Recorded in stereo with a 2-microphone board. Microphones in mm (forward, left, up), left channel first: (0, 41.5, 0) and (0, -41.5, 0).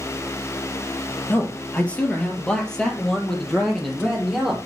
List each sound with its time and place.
1.3 s a man speaking: 20° left (ahead or behind), 2.5 m; by 4.6 s centre (ahead or behind), 4.5 m